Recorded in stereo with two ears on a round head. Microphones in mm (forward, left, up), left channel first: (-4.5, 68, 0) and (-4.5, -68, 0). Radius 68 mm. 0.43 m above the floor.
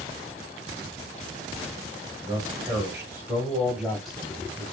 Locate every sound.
2.2 s a man speaking: 30° right (ahead or behind), 1.7 m; by 4.6 s 5° left (ahead or behind), 2 m